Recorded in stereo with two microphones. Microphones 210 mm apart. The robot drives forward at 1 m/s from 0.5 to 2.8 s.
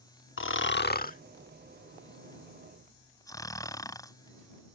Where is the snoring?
70° left (ahead or behind); by 4.1 s 15° left (ahead or behind).